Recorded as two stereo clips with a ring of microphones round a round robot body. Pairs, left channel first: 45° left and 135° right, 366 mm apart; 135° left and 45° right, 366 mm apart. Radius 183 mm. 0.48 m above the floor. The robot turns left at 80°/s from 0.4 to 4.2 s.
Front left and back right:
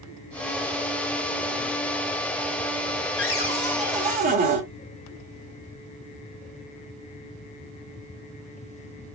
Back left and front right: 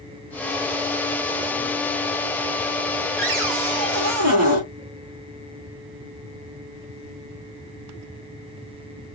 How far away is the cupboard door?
About 2.0 m.